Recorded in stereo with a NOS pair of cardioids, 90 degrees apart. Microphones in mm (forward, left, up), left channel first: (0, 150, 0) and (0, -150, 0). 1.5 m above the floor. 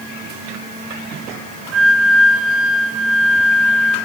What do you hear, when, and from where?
1.7 s a flute: 55° right, 2.0 m